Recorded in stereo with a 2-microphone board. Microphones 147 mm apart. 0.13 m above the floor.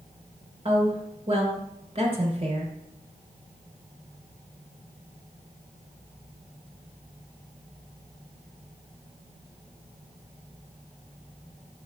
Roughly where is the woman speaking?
Right.